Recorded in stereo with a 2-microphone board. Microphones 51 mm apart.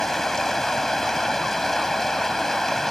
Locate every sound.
0.0 s running water: 10° left (ahead or behind)